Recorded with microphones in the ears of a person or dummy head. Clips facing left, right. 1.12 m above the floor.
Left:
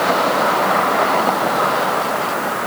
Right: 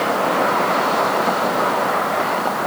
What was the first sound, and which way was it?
Only background noise.